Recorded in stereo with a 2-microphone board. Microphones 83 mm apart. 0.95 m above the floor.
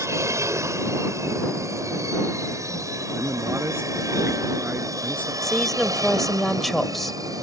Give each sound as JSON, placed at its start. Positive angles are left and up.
{"t": 0.0, "sound": "an aircraft", "side_deg": -35}
{"t": 3.1, "sound": "a man speaking", "side_deg": -25}
{"t": 5.4, "sound": "a woman speaking", "side_deg": 0}